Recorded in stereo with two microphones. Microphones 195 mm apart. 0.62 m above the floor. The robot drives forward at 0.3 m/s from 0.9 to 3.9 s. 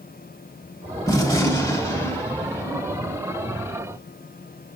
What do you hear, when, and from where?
1.1 s a gunshot: 15° left (ahead or behind), 0.9 m; by 3.2 s 10° left (ahead or behind), 1.5 m